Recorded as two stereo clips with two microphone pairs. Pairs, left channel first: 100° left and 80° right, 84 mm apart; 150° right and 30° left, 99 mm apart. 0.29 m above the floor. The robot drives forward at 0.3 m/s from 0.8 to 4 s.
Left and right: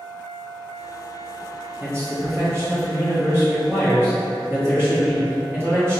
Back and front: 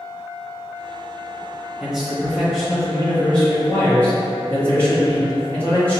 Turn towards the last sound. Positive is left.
turn(degrees=-95)